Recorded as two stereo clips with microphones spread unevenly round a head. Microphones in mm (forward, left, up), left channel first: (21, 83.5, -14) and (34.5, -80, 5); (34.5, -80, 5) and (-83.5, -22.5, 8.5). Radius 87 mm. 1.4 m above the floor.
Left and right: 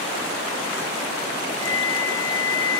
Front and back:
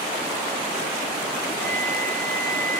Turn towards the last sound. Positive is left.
turn(degrees=105)